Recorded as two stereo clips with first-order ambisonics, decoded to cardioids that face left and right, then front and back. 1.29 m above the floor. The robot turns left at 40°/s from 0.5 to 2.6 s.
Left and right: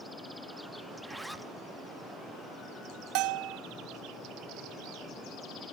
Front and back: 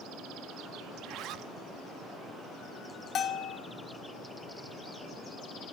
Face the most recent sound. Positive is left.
turn(degrees=-65)